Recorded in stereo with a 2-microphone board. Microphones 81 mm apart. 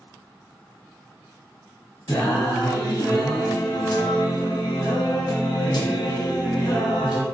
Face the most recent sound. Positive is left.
turn(degrees=70)  # may be behind; listen again after turning